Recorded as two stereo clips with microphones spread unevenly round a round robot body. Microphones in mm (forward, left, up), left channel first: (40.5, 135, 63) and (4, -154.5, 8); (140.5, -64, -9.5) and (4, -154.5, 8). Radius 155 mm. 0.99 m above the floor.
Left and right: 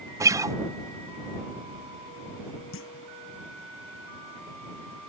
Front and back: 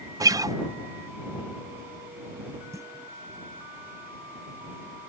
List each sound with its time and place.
0.2 s a guitar: 100° right
2.7 s a clunk: 135° left